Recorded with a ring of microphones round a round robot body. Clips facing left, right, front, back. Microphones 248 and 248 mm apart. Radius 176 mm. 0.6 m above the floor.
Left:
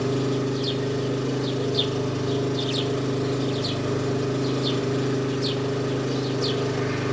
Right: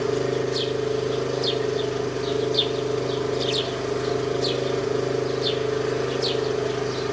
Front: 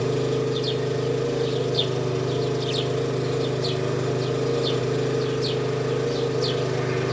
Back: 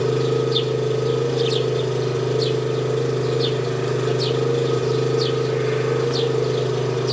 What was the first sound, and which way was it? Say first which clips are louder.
An engine running: right 1 dB, back 4 dB; 100° left.